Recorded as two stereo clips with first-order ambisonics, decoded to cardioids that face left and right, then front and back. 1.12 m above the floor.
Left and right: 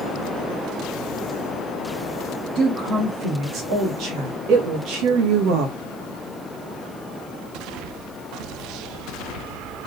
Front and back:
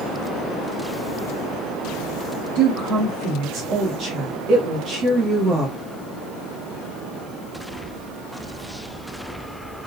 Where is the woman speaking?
140° right, 2.5 m; by 5.8 s 100° right, 1.4 m.